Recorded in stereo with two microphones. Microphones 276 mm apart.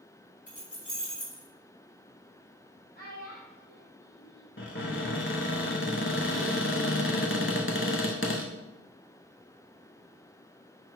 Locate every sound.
0.5 s keys jangling: 30° left (ahead or behind), 1.8 m
3.0 s a child speaking: 35° left (ahead or behind), 1.8 m
4.6 s a cupboard door: 45° left (ahead or behind), 0.5 m